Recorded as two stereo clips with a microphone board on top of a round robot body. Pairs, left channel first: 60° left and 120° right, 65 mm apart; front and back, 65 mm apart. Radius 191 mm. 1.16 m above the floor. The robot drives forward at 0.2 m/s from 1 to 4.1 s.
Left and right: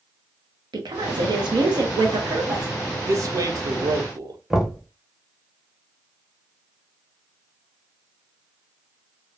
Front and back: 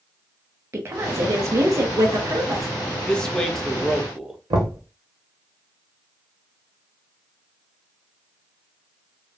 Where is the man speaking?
80° right, 0.7 m; by 4.4 s 95° right, 0.7 m.